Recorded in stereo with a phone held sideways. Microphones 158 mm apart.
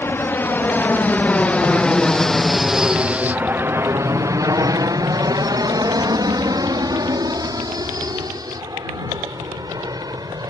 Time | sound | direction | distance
0.0 | an aircraft | 15° left (ahead or behind) | ?